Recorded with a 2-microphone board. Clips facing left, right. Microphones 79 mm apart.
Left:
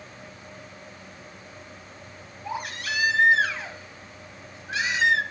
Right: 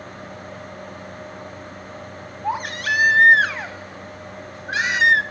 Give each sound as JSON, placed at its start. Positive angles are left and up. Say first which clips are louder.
{"t": 2.4, "sound": "a baby crying", "louder": "right 8 dB", "side_deg": -55, "distance_m": 1.3}